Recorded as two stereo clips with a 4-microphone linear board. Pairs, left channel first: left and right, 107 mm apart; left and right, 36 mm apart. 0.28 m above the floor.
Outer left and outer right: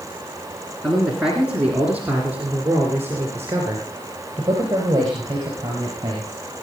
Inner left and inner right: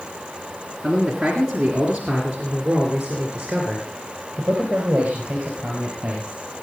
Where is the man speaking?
Centre (ahead or behind), 3 m; by 6.4 s 40° right (ahead or behind), 5.5 m.